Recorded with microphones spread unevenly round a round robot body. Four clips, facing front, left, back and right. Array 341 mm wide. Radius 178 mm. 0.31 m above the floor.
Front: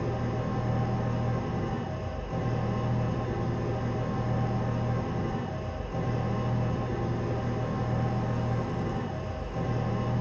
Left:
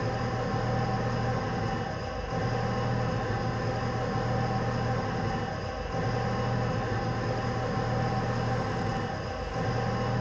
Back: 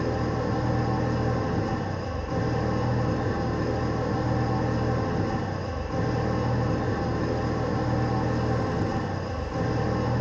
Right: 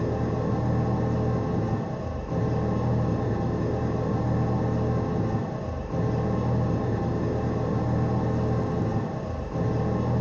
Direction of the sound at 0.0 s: 125° right.